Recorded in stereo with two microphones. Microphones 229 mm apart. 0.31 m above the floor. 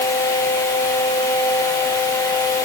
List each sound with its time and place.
Only background noise.